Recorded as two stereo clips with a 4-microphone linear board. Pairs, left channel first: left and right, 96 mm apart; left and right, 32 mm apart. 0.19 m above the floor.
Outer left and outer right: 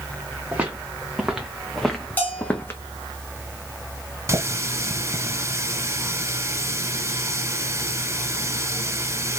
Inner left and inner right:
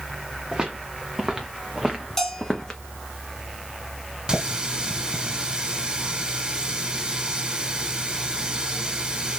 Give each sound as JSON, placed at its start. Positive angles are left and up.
{"t": 0.5, "sound": "footsteps", "side_deg": -15, "distance_m": 1.7}
{"t": 2.2, "sound": "a bell", "side_deg": 15, "distance_m": 1.7}
{"t": 4.3, "sound": "a running tap", "side_deg": -30, "distance_m": 0.9}